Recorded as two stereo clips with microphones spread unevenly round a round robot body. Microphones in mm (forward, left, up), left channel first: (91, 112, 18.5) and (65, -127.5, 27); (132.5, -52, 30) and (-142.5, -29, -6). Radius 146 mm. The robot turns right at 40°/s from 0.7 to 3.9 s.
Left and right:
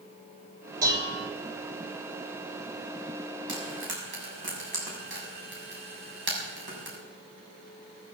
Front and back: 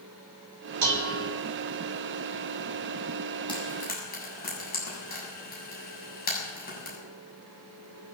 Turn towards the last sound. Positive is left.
turn(degrees=-60)